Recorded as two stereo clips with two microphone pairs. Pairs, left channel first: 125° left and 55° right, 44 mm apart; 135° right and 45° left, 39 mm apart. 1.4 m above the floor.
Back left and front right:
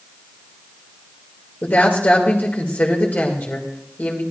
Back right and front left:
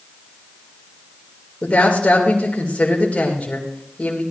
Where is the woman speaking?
170° left, 2 m.